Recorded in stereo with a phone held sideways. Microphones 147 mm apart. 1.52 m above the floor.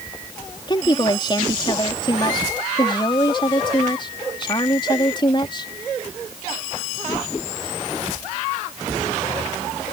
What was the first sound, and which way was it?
A woman speaking, 35° left (ahead or behind).